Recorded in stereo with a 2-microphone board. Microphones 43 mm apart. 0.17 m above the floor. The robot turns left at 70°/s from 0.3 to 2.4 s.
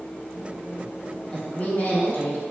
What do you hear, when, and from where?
1.3 s a woman speaking: 160° left, 1.5 m; by 2.4 s 80° left, 1.5 m